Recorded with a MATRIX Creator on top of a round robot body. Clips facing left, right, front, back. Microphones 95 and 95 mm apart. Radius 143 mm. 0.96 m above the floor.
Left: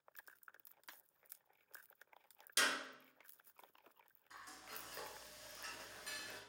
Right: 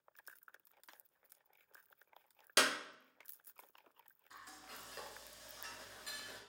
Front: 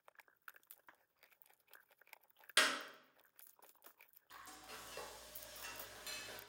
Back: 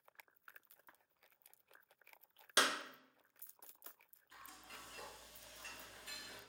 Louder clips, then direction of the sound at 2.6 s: Right 5 dB, back 1 dB; 115° right.